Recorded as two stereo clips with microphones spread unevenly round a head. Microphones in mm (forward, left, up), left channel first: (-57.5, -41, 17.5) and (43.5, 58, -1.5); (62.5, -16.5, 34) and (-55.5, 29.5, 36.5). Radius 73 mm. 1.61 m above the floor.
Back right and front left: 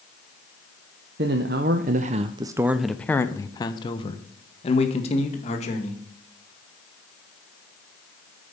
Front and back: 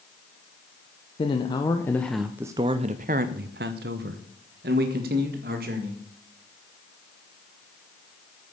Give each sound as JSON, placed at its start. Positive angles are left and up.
{"t": 1.2, "sound": "a man speaking", "azimuth_deg": 30, "distance_m": 0.9}